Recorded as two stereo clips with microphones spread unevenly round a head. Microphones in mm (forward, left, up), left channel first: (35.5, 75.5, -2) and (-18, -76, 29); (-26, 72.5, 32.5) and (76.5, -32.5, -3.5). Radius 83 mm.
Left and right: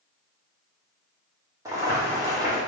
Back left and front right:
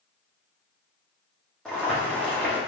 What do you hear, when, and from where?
1.6 s boiling: 160° right, 1.2 m